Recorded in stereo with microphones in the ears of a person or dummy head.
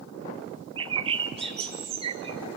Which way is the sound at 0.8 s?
30° right (ahead or behind).